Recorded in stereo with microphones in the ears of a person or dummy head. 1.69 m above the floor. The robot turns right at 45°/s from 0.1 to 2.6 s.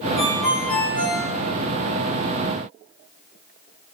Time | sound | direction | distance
0.2 | a ringtone | 145° right | 1.6 m